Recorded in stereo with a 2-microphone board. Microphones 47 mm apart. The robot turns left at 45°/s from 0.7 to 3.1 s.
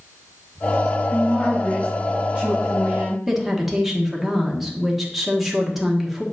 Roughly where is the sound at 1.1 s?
Ahead left.